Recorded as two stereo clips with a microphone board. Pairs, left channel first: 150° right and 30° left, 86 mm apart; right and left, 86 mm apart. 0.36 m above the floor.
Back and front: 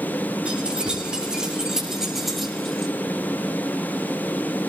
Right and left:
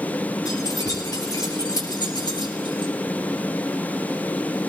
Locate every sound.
0.5 s keys jangling: 45° right, 6 m; by 2.9 s 65° right, 4.5 m